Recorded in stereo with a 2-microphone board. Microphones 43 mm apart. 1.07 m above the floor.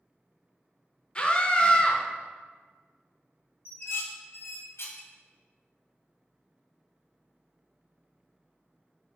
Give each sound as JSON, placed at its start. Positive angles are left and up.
{"t": 1.1, "sound": "a scream", "side_deg": 25, "distance_m": 0.5}
{"t": 3.6, "sound": "dishes clattering", "side_deg": 70, "distance_m": 0.5}